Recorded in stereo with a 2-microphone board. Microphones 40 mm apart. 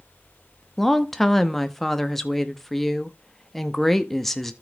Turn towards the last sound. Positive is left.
turn(degrees=5)  # may be behind; listen again after turning